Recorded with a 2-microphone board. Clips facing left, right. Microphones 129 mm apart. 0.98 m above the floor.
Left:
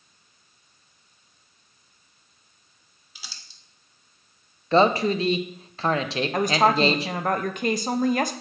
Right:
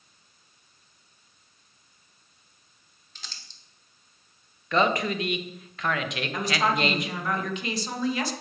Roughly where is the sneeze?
No sneeze in this recording.